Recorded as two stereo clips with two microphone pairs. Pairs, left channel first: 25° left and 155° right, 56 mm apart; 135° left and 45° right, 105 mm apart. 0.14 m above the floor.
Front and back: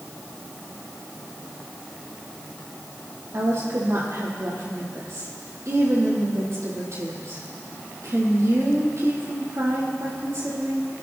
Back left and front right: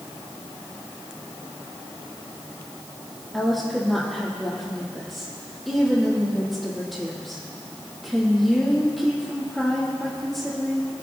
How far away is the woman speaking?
About 4.5 m.